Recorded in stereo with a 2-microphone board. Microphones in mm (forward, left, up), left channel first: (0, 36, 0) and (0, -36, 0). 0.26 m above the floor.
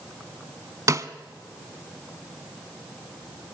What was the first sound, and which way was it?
A snare drum, 50° right (ahead or behind).